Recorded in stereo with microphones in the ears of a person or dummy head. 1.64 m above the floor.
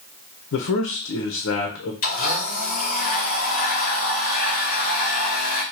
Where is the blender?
50° left (ahead or behind), 1.5 m.